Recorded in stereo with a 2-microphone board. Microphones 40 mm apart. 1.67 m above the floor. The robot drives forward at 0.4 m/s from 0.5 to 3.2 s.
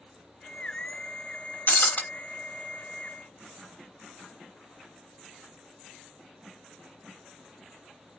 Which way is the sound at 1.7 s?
50° left (ahead or behind).